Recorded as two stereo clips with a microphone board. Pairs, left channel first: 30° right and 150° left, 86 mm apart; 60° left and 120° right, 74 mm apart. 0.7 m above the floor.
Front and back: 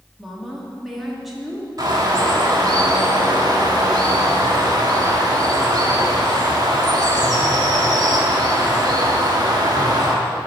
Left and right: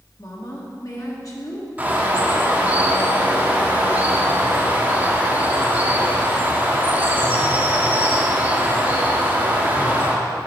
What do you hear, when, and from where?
0.2 s a woman speaking: 60° left, 1.5 m
1.8 s a bird: 175° left, 1.2 m